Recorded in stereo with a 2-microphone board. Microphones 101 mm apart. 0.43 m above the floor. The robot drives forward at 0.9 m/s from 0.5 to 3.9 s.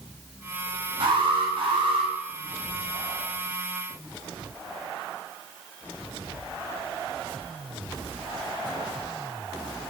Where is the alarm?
55° right (ahead or behind), 7.5 m; by 2.1 s 60° right (ahead or behind), 7 m.